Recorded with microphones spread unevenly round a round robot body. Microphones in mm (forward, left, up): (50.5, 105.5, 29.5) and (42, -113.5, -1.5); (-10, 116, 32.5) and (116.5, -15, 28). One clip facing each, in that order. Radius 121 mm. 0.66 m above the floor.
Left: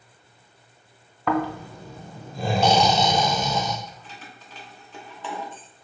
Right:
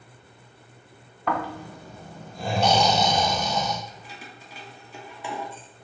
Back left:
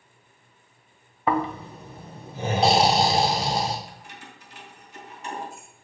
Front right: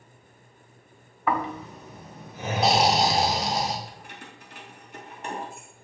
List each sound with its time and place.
1.3 s snoring: 70° left, 0.7 m
3.9 s keys jangling: 20° right, 0.9 m